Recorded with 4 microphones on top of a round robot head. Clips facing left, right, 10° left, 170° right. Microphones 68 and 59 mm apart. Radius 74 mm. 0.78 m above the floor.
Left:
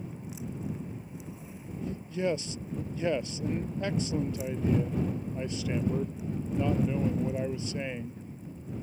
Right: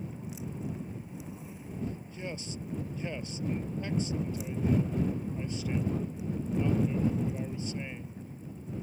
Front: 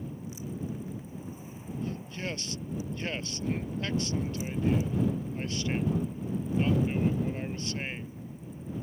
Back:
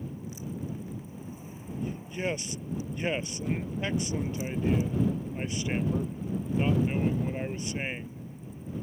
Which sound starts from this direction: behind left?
A man speaking, at 1.8 s.